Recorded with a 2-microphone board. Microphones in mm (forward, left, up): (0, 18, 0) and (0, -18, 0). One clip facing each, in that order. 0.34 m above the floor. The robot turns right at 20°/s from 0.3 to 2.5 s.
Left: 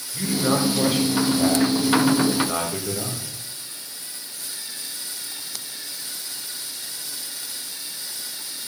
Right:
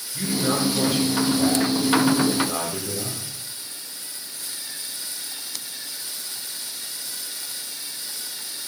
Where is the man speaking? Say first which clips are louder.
Left 2 dB; 20° left, 2 m; by 3.3 s 65° left, 2 m.